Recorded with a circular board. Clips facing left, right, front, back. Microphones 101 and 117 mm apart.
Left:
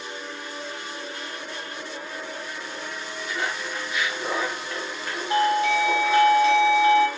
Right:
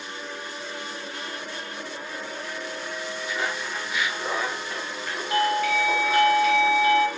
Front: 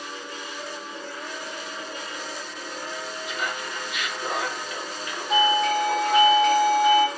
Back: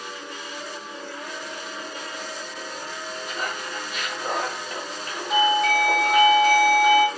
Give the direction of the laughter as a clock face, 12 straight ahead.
6 o'clock.